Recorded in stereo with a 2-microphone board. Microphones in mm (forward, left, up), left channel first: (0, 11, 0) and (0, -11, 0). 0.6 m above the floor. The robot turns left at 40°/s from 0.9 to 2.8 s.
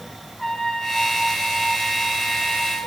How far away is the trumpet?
About 1.9 m.